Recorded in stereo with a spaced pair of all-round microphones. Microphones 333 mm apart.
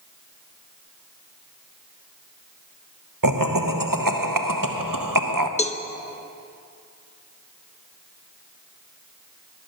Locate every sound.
3.2 s laughter: 75° right (ahead or behind), 1.0 m
5.6 s a cowbell: 20° left (ahead or behind), 0.6 m